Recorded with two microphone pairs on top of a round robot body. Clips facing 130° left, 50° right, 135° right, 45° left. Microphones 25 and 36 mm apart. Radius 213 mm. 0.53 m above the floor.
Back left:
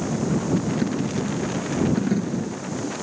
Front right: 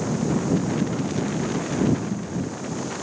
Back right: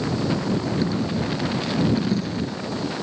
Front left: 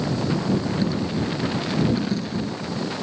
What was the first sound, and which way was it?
A dropped coin, 135° left.